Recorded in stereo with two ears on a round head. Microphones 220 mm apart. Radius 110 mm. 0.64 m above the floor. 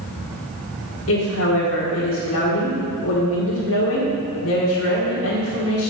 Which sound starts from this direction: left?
A woman speaking, at 1.1 s.